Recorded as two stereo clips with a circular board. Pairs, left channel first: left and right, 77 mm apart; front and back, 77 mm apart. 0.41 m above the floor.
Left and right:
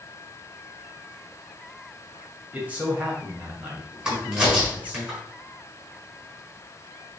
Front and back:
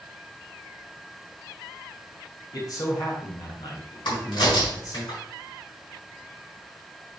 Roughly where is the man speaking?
Ahead right.